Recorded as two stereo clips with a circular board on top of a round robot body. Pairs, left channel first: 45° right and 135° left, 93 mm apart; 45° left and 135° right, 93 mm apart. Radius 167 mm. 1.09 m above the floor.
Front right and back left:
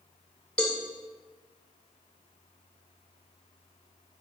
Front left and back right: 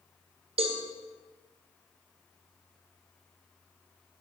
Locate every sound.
0.6 s a cowbell: 125° right, 1.9 m